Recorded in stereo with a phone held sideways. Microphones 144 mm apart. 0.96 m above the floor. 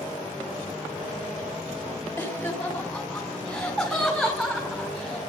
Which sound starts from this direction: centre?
Laughter, at 2.2 s.